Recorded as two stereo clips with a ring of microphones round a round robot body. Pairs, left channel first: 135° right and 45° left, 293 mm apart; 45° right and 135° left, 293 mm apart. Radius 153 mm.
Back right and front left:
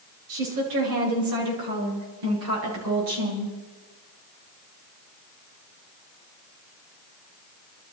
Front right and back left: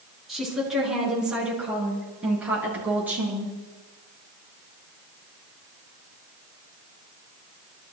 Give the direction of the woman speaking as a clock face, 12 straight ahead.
10 o'clock.